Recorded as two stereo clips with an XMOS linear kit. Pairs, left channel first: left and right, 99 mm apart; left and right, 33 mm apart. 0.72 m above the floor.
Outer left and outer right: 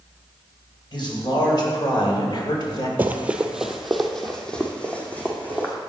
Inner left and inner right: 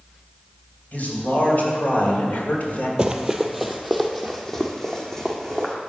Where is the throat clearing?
I don't hear throat clearing.